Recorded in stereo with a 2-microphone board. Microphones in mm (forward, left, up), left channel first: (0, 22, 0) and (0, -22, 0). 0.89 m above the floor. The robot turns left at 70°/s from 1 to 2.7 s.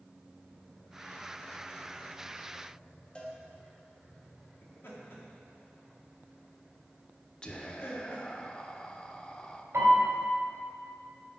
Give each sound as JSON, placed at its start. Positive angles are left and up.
{"t": 3.1, "sound": "a cowbell", "side_deg": 25, "distance_m": 1.2}
{"t": 4.6, "sound": "laughter", "side_deg": 60, "distance_m": 2.0}
{"t": 7.4, "sound": "whispering", "side_deg": 20, "distance_m": 0.6}
{"t": 9.7, "sound": "a piano", "side_deg": -80, "distance_m": 2.5}